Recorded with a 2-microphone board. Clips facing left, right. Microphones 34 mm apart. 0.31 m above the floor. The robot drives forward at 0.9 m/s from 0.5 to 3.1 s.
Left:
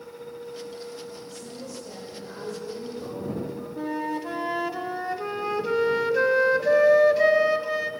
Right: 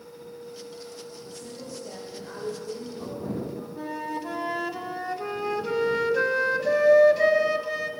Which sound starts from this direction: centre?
A flute, at 3.8 s.